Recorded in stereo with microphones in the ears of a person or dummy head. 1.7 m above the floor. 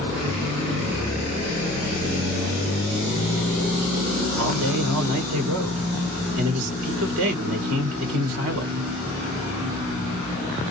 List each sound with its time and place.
4.4 s a man speaking: 80° right, 2.5 m